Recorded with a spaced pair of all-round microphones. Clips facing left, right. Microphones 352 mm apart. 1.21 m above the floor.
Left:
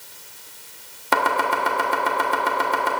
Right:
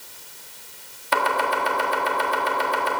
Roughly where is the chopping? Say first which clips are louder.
Left 1 dB; left.